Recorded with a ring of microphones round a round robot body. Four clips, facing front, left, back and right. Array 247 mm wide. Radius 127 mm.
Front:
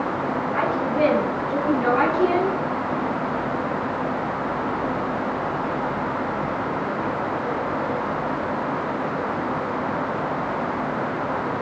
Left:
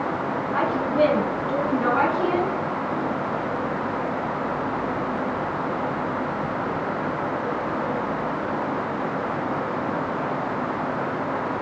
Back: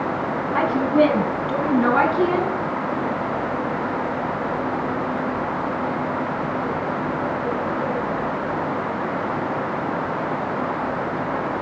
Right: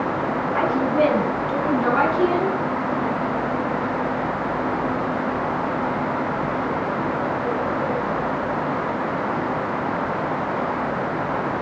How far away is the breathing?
I don't hear breathing.